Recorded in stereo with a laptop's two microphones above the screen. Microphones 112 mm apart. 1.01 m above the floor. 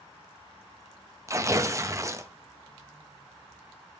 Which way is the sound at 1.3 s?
25° right (ahead or behind).